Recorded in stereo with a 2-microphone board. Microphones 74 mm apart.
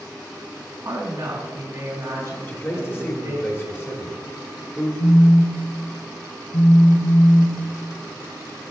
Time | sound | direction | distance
0.8 | a woman speaking | 35° right (ahead or behind) | 3 m
2.5 | a man speaking | 30° left (ahead or behind) | 1.4 m
5.0 | a phone buzzing | 50° left (ahead or behind) | 0.7 m